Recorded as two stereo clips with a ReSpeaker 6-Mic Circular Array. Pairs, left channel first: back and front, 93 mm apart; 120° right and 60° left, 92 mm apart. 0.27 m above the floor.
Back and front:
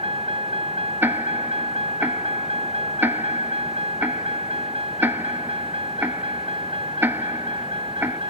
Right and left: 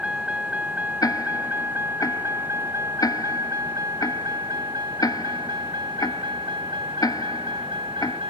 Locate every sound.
0.0 s a vehicle: 20° right; by 8.3 s 30° left
1.0 s ticking: 70° right